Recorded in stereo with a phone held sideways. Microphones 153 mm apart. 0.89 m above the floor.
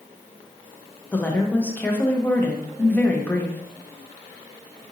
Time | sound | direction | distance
1.1 | a woman speaking | 10° left (ahead or behind) | 0.6 m